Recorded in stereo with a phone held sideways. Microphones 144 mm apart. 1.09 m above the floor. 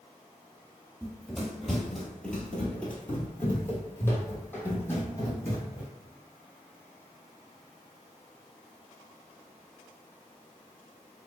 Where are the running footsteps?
5° right (ahead or behind), 1.2 m; by 5.9 s 15° left (ahead or behind), 2.5 m.